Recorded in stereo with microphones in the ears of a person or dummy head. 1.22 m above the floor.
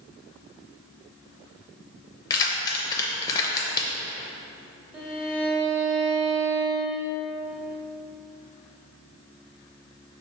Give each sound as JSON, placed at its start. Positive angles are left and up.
{"t": 2.3, "sound": "keys jangling", "side_deg": 20, "distance_m": 0.5}
{"t": 4.9, "sound": "a violin", "side_deg": -15, "distance_m": 1.0}